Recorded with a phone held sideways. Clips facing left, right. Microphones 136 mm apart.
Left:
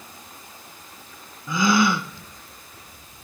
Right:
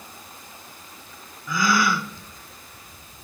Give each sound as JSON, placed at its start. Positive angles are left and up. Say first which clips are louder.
{"t": 1.5, "sound": "a gasp", "louder": "left 3 dB", "side_deg": 25, "distance_m": 0.9}